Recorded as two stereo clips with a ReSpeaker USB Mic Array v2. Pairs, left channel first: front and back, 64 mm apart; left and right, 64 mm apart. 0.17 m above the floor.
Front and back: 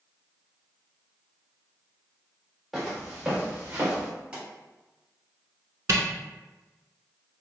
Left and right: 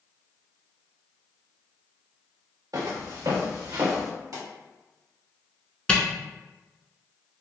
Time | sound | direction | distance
2.7 | footsteps | 90° right | 1.6 m
4.3 | a pop | 110° right | 1.8 m
5.9 | a camera shutter | 160° left | 0.6 m